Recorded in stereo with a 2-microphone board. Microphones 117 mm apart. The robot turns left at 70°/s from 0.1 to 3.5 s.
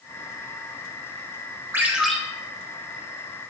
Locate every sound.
1.7 s a ringtone: 20° right (ahead or behind), 1.0 m; by 2.1 s 5° left (ahead or behind), 1.0 m